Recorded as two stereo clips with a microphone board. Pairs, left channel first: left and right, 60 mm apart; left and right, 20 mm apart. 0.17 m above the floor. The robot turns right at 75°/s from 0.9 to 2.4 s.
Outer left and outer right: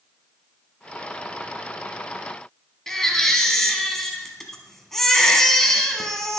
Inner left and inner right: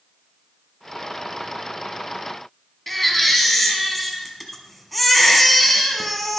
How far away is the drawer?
I don't hear a drawer.